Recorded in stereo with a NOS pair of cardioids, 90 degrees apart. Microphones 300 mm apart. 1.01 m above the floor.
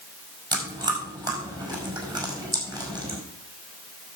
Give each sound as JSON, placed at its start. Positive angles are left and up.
{"t": 0.5, "sound": "chewing", "azimuth_deg": -15, "distance_m": 5.0}